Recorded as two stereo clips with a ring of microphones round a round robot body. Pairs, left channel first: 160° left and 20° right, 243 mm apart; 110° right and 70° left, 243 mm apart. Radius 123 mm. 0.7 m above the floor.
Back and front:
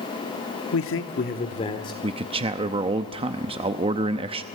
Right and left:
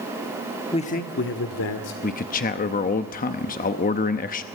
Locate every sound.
0.7 s a man speaking: straight behind, 1.2 m; by 1.9 s 130° right, 2 m
2.0 s a man speaking: 80° right, 0.8 m